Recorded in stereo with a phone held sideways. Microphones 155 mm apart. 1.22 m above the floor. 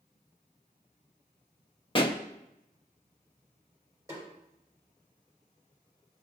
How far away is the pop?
About 0.7 m.